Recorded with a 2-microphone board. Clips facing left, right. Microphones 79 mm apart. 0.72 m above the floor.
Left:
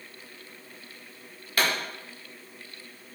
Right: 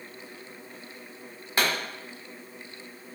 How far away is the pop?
About 1.4 m.